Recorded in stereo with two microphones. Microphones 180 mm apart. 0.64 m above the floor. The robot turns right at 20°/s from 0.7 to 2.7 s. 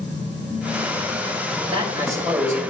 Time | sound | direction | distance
1.7 | a man speaking | 35° right (ahead or behind) | 3 m